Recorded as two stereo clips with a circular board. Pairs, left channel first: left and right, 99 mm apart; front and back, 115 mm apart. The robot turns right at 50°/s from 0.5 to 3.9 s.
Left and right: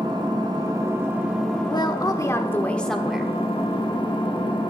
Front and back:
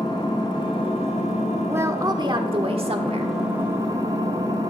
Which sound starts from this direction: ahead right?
An engine running, at 0.0 s.